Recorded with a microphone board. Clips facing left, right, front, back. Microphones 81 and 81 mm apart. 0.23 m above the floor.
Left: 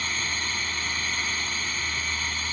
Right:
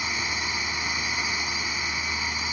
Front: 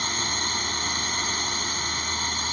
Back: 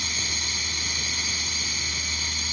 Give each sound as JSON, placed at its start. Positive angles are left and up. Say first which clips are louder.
{"t": 0.0, "sound": "a drone", "louder": "right 1 dB, front 5 dB", "azimuth_deg": -20}